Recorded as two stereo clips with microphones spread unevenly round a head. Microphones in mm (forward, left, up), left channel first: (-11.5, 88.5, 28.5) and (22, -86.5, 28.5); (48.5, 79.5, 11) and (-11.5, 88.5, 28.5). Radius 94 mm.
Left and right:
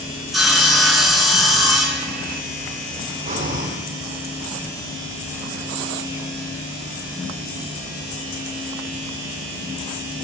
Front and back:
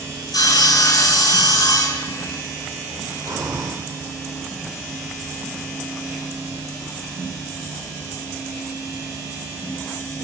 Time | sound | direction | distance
0.3 | sawing | 10° left | 2 m
3.2 | breathing | 130° right | 1.5 m